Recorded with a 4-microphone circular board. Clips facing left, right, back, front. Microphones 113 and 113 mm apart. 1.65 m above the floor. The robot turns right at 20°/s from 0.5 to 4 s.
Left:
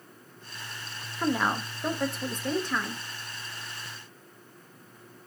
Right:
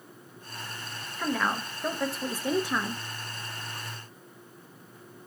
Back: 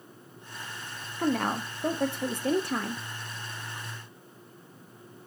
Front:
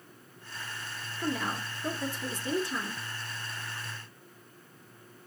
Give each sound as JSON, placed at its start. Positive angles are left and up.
{"t": 1.2, "sound": "a woman speaking", "azimuth_deg": 165, "distance_m": 0.6}